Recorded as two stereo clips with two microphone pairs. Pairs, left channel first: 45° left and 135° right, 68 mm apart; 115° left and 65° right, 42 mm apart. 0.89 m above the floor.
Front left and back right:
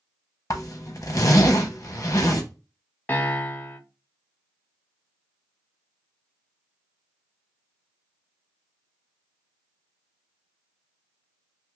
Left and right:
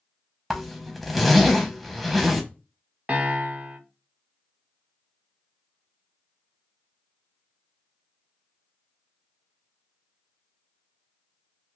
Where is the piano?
15° right, 0.6 m.